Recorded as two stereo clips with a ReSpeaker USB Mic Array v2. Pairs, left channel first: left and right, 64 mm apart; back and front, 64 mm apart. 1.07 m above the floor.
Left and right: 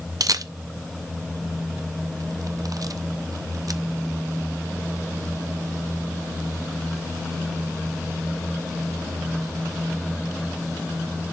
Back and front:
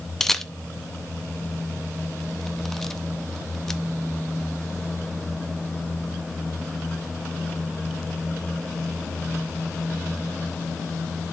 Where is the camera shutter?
95° right, 0.6 m.